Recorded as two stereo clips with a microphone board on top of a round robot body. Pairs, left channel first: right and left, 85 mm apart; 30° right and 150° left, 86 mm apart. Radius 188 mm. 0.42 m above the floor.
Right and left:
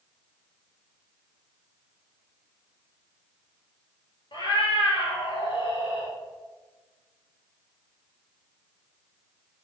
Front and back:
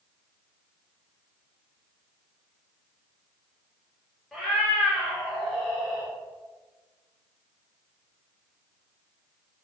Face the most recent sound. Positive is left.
turn(degrees=-110)